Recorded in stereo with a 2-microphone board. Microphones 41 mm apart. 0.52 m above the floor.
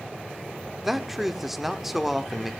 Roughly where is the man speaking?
Centre.